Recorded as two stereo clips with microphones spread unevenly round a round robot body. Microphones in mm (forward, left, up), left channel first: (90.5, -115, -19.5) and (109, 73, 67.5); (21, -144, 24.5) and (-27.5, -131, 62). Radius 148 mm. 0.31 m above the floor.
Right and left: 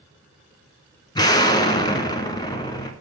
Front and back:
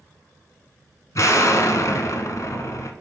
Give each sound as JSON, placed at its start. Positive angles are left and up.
{"t": 1.1, "sound": "an explosion", "azimuth_deg": -25, "distance_m": 1.0}